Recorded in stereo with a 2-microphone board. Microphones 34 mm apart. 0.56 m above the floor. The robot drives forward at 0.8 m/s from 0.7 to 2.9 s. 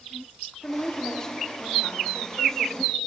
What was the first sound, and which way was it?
A woman speaking, 30° left (ahead or behind).